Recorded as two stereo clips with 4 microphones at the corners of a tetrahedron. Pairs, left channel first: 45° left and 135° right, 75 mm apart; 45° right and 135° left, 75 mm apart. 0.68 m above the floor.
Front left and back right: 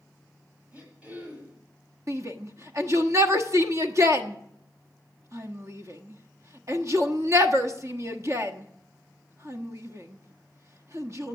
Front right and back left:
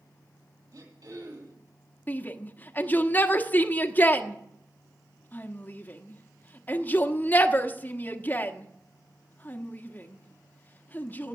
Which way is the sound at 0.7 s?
150° left.